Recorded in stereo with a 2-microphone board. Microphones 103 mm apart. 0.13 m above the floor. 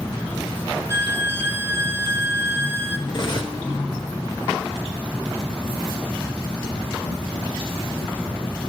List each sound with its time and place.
0.9 s a violin: 25° right (ahead or behind), 0.6 m
3.1 s cutlery clinking: 50° left (ahead or behind), 1.0 m